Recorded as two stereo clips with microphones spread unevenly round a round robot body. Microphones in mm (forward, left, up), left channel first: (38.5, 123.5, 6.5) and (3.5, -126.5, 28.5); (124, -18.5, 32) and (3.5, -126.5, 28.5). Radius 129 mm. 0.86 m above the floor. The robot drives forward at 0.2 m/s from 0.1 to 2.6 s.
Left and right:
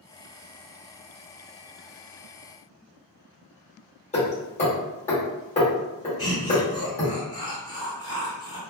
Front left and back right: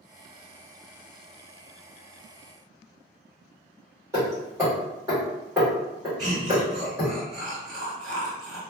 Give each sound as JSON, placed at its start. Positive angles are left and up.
{"t": 4.1, "sound": "hammering", "azimuth_deg": 145, "distance_m": 1.3}
{"t": 6.2, "sound": "laughter", "azimuth_deg": 155, "distance_m": 1.2}